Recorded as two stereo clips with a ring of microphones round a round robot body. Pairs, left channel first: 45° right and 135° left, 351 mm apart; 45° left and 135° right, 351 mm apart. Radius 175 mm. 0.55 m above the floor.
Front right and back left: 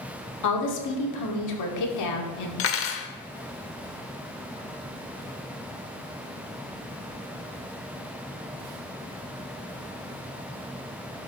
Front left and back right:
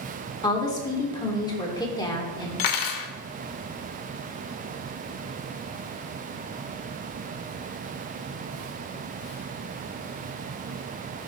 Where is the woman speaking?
30° right, 1.6 m.